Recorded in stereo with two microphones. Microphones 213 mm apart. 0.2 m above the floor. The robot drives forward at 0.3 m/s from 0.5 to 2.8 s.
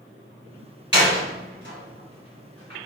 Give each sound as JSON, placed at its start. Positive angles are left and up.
{"t": 0.9, "sound": "a door slam", "side_deg": -50, "distance_m": 1.4}